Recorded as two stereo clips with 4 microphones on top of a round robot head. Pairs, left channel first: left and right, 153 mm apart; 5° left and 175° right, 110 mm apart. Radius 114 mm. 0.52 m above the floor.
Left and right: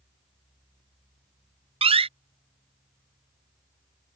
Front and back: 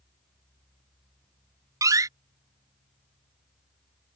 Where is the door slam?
125° right.